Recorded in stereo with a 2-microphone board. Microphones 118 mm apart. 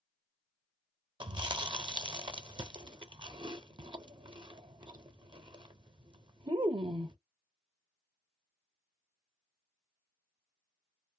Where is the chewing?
45° right (ahead or behind), 0.5 m.